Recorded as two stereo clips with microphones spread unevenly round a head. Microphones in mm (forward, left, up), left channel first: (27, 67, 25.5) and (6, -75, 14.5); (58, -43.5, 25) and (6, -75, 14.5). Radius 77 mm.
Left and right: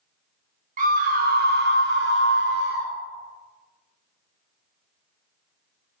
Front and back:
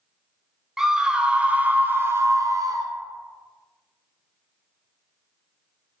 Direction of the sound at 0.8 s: 65° right.